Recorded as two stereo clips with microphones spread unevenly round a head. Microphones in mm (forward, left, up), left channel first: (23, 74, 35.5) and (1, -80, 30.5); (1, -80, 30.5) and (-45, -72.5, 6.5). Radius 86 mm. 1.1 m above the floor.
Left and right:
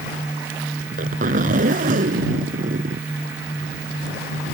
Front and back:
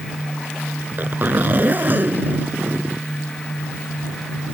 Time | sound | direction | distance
0.8 | a zipper | 140° right | ?